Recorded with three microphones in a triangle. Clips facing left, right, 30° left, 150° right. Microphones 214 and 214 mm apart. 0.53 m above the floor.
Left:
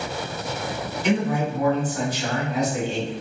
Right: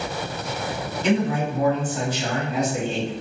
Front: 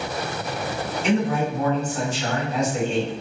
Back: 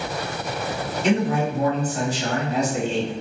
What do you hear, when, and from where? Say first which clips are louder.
1.0 s a man speaking: right 1 dB, back 1 dB; 130° right, 1.5 m